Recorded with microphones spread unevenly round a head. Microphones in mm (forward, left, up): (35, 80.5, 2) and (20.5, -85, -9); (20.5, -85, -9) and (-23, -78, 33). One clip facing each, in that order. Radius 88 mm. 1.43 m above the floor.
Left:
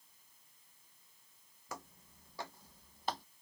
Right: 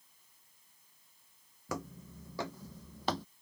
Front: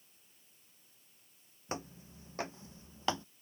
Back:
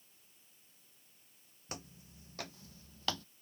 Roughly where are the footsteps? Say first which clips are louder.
Right 9 dB, front 7 dB; right.